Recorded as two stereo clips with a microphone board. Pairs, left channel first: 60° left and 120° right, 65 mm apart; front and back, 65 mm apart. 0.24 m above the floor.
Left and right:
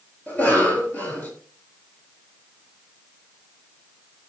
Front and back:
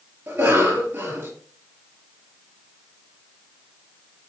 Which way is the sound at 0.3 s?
120° left.